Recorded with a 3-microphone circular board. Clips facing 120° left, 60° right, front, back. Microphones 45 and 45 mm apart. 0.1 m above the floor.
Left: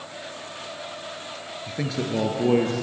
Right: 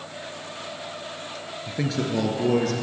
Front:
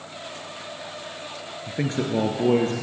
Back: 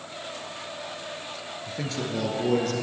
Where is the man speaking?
15° left, 1.3 m; by 2.7 s 55° left, 2 m.